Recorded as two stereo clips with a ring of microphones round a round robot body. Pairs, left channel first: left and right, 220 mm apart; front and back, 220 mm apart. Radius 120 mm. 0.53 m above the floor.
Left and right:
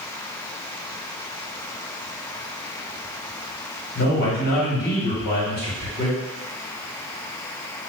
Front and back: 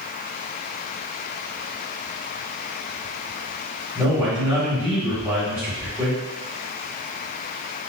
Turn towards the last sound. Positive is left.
turn(degrees=105)